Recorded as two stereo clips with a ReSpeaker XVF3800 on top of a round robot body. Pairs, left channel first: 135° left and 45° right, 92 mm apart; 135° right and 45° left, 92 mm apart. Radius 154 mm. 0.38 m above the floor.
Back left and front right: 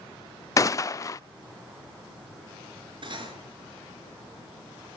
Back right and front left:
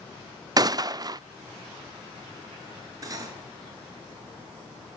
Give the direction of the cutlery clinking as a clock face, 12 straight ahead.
12 o'clock.